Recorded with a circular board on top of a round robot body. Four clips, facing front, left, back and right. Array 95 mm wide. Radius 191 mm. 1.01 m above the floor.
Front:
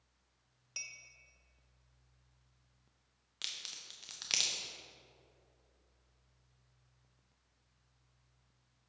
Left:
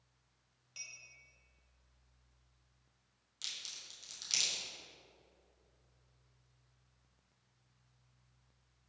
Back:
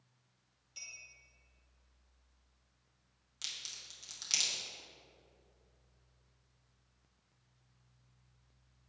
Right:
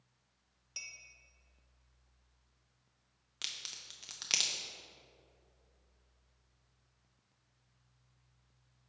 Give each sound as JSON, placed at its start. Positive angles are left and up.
{"t": 0.8, "sound": "a clink", "azimuth_deg": -25, "distance_m": 0.8}
{"t": 3.4, "sound": "a crack", "azimuth_deg": -65, "distance_m": 0.7}